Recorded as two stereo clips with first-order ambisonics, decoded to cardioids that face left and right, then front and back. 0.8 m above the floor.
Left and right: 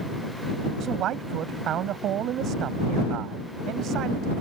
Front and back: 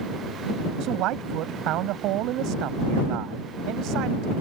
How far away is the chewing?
I don't hear chewing.